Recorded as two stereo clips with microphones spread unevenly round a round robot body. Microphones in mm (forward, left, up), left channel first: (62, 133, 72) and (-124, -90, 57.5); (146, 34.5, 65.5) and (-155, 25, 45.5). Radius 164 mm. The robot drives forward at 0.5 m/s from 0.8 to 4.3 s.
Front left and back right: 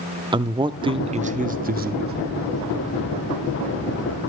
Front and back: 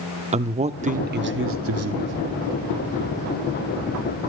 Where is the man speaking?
175° right, 0.7 m; by 2.1 s straight behind, 1.2 m.